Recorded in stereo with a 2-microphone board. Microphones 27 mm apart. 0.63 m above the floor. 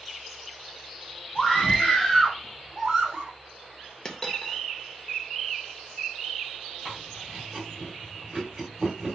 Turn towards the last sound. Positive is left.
turn(degrees=-25)  # may be behind; listen again after turning